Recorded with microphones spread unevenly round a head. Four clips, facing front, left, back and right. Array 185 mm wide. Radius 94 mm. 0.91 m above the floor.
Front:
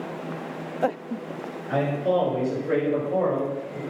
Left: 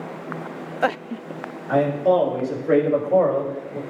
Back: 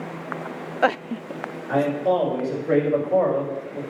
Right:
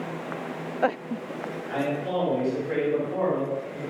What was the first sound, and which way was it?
A man speaking, 95° left.